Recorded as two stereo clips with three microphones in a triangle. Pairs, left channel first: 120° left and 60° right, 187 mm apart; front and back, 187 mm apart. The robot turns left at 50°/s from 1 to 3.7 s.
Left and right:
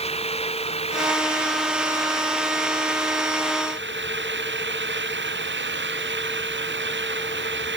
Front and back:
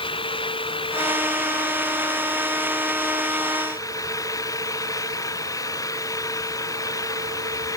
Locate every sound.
0.0 s an engine running: 65° left; by 7.8 s 70° right